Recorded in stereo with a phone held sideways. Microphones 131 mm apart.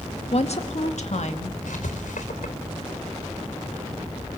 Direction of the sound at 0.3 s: 55° left (ahead or behind).